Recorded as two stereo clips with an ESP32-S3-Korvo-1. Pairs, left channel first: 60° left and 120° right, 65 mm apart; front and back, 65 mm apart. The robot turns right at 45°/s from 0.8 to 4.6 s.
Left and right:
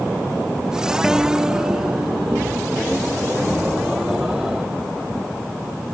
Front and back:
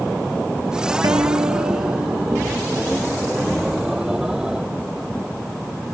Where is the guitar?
155° left; by 2.5 s 140° right.